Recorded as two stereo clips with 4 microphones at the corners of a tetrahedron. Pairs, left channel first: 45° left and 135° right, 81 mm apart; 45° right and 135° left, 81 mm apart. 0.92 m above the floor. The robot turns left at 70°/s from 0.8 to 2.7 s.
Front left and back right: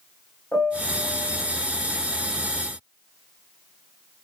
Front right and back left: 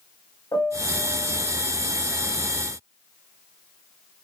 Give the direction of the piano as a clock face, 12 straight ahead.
12 o'clock.